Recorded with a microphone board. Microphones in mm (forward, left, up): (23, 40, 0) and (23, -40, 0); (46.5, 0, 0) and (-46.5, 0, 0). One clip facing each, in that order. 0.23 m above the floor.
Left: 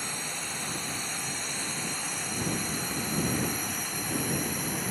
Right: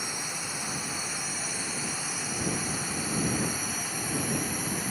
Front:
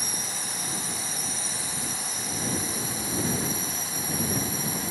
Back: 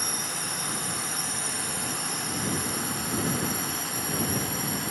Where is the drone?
170° right; by 4.9 s straight behind.